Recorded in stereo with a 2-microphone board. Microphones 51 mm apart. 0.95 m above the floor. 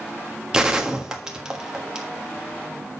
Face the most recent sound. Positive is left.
turn(degrees=-15)  # may be behind; listen again after turning